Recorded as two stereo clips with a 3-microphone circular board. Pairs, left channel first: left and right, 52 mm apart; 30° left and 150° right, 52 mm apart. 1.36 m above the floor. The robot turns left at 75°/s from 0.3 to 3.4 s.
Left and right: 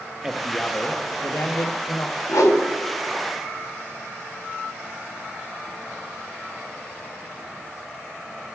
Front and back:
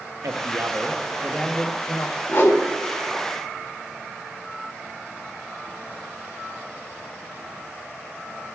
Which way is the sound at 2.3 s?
80° left.